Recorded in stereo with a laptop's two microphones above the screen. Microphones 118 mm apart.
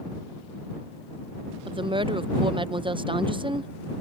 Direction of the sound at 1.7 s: 45° right (ahead or behind).